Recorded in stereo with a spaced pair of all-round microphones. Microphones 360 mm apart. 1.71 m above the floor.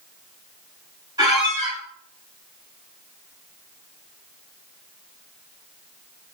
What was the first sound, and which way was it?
A squeak, 10° right (ahead or behind).